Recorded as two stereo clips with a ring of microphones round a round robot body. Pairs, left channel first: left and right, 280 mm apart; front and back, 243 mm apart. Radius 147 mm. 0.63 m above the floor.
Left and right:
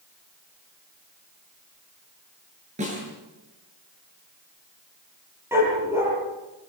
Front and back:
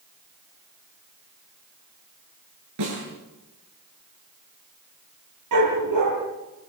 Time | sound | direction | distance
2.8 | a snare drum | 155° right | 10 m
5.5 | a dog barking | 170° right | 6.5 m